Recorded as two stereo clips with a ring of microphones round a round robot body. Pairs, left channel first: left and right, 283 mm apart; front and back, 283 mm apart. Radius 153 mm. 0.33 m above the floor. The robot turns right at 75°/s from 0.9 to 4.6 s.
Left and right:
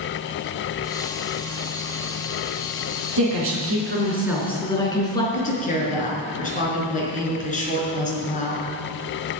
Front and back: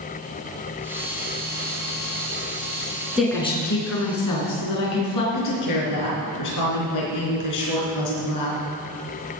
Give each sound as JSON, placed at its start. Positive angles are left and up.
{"t": 3.2, "sound": "a woman speaking", "azimuth_deg": -95, "distance_m": 3.5}
{"t": 5.3, "sound": "a woman speaking", "azimuth_deg": 30, "distance_m": 3.5}